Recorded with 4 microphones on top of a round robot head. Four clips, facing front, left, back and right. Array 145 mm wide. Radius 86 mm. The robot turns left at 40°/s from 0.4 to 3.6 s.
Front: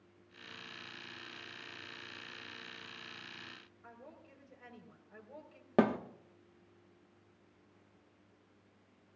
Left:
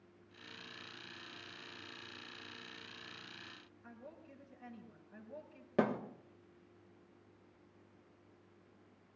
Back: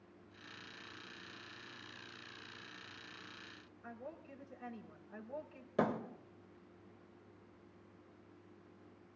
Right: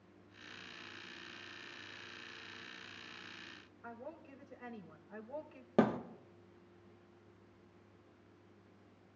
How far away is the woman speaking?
About 4.5 m.